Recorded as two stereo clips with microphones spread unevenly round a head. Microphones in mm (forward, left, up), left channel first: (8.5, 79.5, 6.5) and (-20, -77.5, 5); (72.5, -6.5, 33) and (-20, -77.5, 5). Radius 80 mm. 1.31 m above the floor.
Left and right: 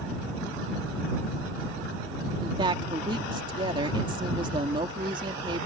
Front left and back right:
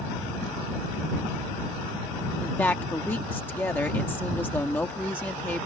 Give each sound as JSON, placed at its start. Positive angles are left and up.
{"t": 2.4, "sound": "a woman speaking", "azimuth_deg": -40}